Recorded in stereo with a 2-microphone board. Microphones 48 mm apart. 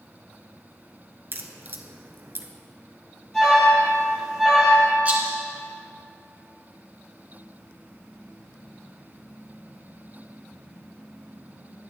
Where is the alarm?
10° left (ahead or behind), 3 m.